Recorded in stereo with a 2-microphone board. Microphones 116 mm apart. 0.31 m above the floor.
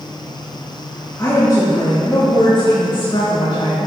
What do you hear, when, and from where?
1.2 s a woman speaking: 30° left (ahead or behind), 4.5 m; by 3.8 s 60° left (ahead or behind), 5.5 m